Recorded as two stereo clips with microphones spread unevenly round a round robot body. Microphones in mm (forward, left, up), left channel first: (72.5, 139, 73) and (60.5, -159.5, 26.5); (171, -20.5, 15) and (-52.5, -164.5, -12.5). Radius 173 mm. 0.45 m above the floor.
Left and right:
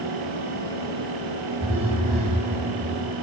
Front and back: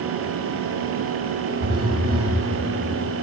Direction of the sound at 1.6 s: 165° right.